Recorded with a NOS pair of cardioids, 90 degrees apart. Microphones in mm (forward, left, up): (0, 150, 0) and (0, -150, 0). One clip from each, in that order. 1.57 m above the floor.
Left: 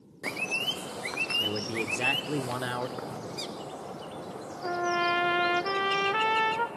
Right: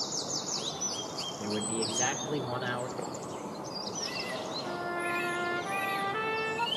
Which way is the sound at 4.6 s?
65° left.